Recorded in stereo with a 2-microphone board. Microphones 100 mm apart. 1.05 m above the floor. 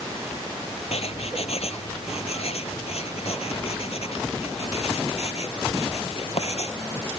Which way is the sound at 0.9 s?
75° left (ahead or behind).